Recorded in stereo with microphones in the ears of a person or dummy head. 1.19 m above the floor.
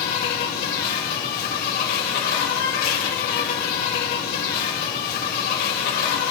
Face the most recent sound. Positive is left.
turn(degrees=50)  # may be behind; listen again after turning